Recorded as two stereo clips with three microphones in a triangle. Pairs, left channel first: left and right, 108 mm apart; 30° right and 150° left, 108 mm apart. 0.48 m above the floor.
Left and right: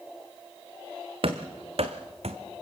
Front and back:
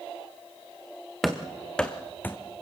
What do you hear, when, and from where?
1.2 s running footsteps: 120° right, 1.8 m; by 2.4 s 100° right, 1.3 m